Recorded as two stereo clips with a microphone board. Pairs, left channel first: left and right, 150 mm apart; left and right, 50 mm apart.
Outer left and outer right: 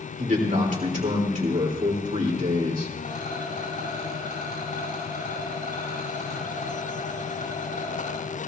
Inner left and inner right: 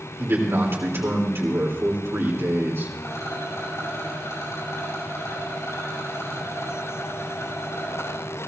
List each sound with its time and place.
0.2 s a man speaking: 55° right (ahead or behind), 3.5 m
3.0 s a rattle: 65° left (ahead or behind), 8 m